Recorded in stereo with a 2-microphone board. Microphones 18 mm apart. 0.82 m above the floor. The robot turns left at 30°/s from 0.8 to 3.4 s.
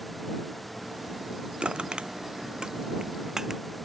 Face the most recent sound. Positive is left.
turn(degrees=-35)  # may be behind; listen again after turning